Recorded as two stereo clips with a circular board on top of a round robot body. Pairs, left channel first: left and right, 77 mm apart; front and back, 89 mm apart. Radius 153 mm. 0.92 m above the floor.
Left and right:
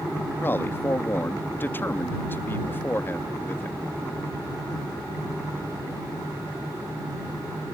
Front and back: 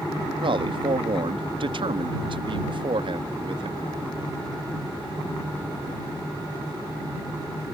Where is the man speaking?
155° left.